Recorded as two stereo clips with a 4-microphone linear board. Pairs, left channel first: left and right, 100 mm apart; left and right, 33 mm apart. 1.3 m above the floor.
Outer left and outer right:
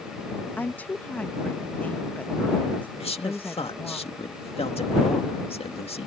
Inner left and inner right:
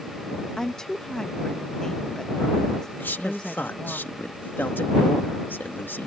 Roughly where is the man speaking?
Left.